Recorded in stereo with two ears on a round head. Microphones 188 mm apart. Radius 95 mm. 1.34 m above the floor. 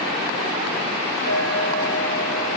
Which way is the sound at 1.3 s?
75° right (ahead or behind).